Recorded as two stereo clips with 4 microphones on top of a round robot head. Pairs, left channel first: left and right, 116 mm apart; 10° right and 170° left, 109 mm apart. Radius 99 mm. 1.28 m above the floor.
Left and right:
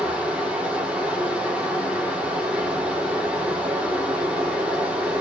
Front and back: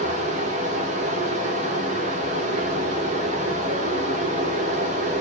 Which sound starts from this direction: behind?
Running water, at 0.0 s.